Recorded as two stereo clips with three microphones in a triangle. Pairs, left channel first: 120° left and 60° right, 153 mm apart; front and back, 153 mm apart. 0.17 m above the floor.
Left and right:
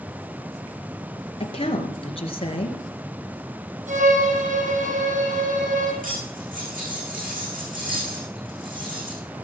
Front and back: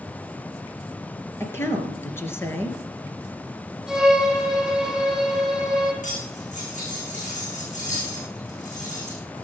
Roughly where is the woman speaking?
Left.